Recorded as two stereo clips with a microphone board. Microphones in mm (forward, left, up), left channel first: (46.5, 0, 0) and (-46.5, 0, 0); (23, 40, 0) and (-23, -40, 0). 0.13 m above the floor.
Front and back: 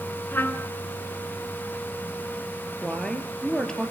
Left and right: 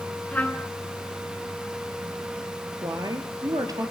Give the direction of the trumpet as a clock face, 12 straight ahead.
11 o'clock.